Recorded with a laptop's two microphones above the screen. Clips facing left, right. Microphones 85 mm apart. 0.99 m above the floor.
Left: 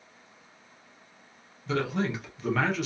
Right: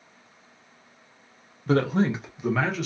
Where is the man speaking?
50° right (ahead or behind), 0.6 m; by 2.9 s 5° left (ahead or behind), 0.7 m.